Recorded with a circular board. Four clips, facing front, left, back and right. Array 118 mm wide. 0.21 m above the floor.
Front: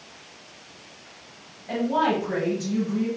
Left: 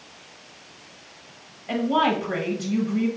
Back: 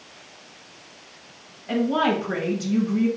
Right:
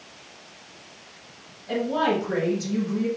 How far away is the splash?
No splash in this recording.